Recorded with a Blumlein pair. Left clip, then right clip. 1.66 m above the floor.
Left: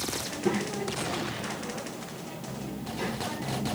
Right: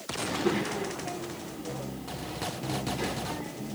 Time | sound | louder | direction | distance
0.2 | a child speaking | right 5 dB | 5° left | 2 m